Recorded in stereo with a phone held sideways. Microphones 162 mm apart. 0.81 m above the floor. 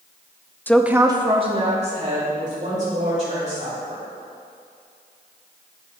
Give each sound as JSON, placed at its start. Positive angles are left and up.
{"t": 0.7, "sound": "a woman speaking", "side_deg": 10, "distance_m": 0.5}